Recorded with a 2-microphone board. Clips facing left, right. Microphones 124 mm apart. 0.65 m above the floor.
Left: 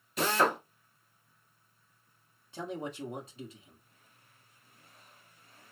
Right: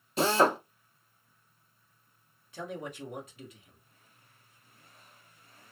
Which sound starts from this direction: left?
A man speaking, at 2.5 s.